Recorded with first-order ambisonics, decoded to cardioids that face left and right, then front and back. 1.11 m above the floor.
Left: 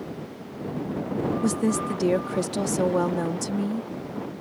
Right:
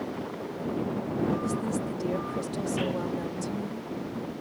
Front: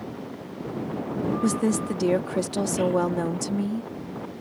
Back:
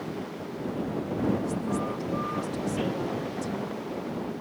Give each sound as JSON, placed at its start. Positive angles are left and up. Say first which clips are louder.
{"t": 1.4, "sound": "a woman speaking", "louder": "left 5 dB, front 5 dB", "azimuth_deg": 35}